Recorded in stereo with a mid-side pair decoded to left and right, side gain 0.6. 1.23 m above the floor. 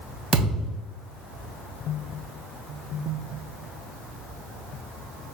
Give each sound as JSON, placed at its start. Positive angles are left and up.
{"t": 0.3, "sound": "a thud", "azimuth_deg": -30, "distance_m": 3.0}